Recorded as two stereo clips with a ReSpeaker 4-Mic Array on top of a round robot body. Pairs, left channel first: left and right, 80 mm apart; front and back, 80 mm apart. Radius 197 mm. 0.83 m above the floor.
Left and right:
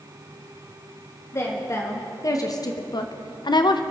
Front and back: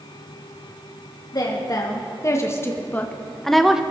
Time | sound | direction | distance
1.3 | a woman speaking | 35° left | 1.9 m